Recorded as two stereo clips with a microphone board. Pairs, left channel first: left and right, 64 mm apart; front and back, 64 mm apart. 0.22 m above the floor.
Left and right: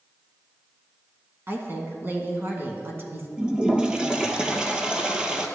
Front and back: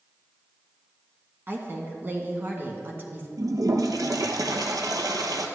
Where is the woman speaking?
135° right, 1.7 m.